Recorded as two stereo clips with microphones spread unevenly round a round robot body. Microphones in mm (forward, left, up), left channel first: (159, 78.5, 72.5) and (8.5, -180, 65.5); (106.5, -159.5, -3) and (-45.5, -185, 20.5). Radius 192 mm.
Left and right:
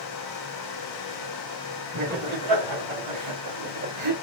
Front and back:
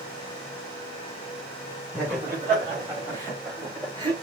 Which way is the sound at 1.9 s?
85° right.